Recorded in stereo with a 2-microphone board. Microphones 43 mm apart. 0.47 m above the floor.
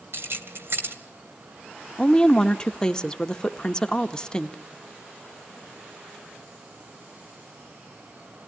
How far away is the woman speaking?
About 0.9 m.